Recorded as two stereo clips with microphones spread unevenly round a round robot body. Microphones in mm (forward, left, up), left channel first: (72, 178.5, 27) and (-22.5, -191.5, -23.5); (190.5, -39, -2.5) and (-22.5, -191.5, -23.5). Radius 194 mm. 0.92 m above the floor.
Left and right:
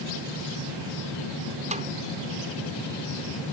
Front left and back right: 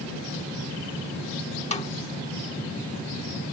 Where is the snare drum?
30° right.